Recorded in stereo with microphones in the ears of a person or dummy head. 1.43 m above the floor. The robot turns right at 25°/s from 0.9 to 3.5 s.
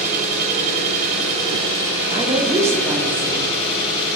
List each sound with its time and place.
0.0 s an engine running: 35° right, 1.3 m; by 4.2 s 30° left, 1.3 m
2.1 s a woman speaking: 30° right, 0.6 m; by 3.5 s 5° left, 0.6 m